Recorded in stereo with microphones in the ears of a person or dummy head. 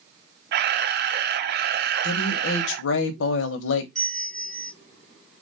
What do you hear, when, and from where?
0.5 s a camera shutter: 45° right (ahead or behind), 0.5 m
2.0 s a woman speaking: 75° left (ahead or behind), 1.3 m
4.0 s a bell: 10° left (ahead or behind), 0.6 m